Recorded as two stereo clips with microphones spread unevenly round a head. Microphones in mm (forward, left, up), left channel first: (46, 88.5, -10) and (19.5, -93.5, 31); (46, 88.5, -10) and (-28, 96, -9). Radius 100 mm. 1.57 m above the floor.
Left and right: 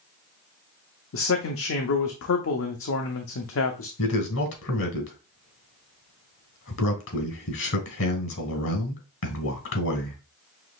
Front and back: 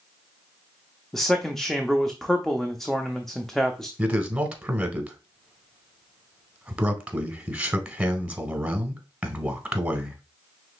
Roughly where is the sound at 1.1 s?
Left.